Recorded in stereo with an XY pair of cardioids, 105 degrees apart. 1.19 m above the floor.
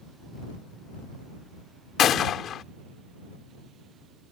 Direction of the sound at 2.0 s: 65° left.